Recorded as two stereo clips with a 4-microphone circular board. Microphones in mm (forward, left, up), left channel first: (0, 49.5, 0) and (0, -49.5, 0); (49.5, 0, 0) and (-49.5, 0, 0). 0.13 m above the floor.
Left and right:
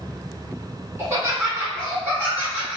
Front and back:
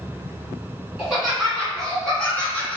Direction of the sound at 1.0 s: 115° right.